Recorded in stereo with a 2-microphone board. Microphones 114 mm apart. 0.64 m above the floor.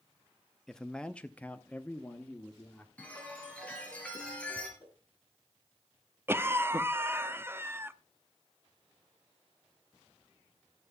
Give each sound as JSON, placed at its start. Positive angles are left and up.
{"t": 0.7, "sound": "a man speaking", "side_deg": 5, "distance_m": 0.6}
{"t": 3.0, "sound": "a chime", "side_deg": 10, "distance_m": 3.0}
{"t": 4.8, "sound": "a whoosh", "side_deg": 40, "distance_m": 5.0}
{"t": 6.3, "sound": "a cough", "side_deg": -20, "distance_m": 0.6}